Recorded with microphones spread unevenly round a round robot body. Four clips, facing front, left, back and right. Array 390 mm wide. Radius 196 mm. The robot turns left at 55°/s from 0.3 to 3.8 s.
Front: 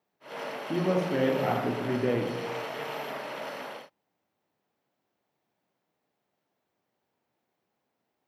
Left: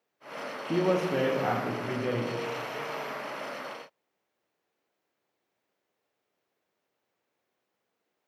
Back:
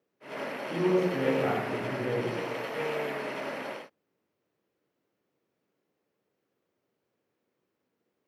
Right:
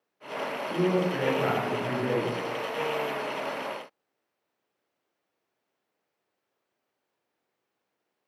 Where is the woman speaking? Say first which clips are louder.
Even, back 1 dB; 70° left, 0.8 m; by 2.3 s 20° right, 0.8 m.